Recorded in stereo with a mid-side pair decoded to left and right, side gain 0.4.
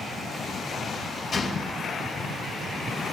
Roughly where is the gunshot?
Ahead left.